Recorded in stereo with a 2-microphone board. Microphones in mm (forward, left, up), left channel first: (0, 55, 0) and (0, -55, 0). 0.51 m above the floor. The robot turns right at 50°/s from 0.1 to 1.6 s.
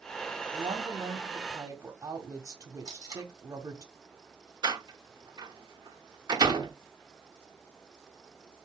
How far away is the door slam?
About 0.9 m.